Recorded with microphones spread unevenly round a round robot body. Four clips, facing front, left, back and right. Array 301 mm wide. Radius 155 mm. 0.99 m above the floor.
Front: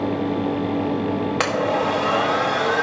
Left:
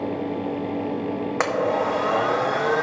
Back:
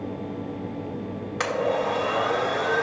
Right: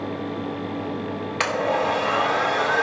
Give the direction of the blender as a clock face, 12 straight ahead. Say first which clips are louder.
Even, front 1 dB; 10 o'clock.